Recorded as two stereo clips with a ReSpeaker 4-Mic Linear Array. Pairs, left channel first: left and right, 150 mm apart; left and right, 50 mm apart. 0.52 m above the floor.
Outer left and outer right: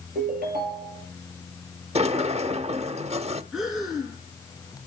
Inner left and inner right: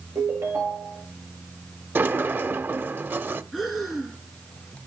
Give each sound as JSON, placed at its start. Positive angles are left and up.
{"t": 0.1, "sound": "a ringtone", "side_deg": -70, "distance_m": 7.5}
{"t": 1.9, "sound": "a sliding door", "side_deg": -40, "distance_m": 0.7}
{"t": 3.5, "sound": "breathing", "side_deg": -5, "distance_m": 5.5}